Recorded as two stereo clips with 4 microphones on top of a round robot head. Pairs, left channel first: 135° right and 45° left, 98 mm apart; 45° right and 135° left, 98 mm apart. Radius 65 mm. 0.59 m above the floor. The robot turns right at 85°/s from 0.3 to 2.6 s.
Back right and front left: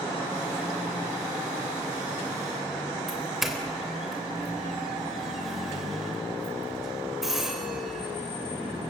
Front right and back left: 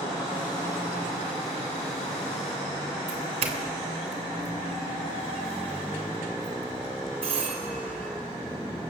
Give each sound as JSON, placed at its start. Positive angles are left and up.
{"t": 3.1, "sound": "a doorbell", "azimuth_deg": 130, "distance_m": 3.5}